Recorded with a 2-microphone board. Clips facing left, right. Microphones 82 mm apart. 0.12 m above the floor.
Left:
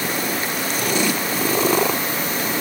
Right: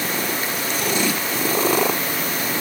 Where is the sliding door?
No sliding door in this recording.